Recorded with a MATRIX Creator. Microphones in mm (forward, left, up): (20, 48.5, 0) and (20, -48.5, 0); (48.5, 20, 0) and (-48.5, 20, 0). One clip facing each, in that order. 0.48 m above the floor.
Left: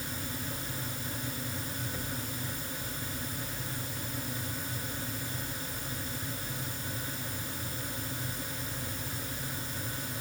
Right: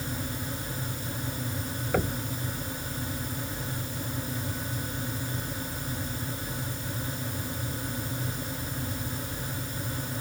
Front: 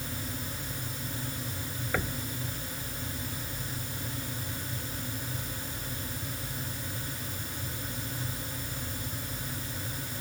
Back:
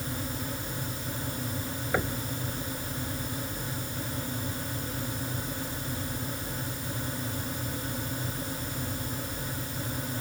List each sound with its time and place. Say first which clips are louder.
1.9 s knocking: right 11 dB, back 3 dB; 105° right